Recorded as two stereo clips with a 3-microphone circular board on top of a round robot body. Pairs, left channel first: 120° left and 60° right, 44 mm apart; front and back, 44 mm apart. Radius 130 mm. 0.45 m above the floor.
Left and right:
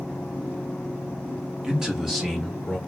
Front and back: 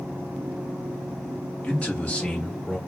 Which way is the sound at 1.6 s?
5° right.